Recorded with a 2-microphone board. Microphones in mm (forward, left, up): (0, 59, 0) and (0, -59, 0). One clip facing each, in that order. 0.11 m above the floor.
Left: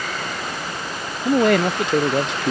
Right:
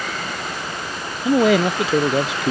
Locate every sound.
1.2 s a man speaking: 5° right (ahead or behind)